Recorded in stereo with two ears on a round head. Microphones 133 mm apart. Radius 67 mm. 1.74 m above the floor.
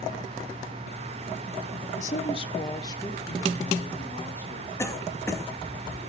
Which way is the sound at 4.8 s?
20° left (ahead or behind).